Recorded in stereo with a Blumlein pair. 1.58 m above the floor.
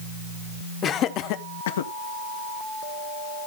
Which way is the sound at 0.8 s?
25° left.